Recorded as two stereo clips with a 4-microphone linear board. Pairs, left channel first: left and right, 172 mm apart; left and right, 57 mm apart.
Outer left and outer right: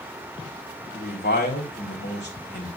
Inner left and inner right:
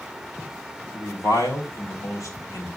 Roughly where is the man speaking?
Left.